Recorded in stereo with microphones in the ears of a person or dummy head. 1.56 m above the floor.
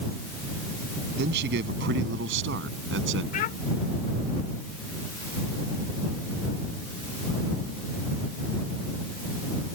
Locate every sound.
1.2 s a man speaking: 65° right (ahead or behind); by 3.2 s 75° right (ahead or behind)
3.3 s a child speaking: 50° left (ahead or behind)